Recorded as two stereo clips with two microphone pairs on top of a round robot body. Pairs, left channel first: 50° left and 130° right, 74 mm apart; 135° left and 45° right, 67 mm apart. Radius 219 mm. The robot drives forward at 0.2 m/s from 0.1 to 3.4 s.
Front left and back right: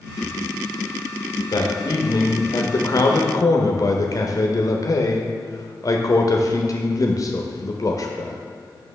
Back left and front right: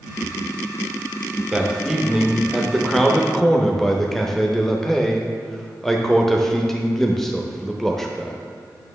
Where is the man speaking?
35° left, 1.1 m; by 8.4 s 55° left, 0.9 m.